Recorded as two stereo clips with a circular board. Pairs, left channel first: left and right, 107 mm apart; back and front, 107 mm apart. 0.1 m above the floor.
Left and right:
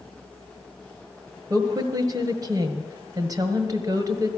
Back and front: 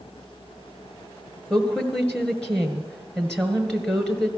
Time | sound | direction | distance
1.5 | a woman speaking | 100° right | 1.6 m